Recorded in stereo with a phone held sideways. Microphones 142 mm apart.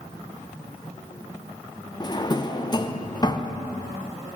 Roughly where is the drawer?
Left.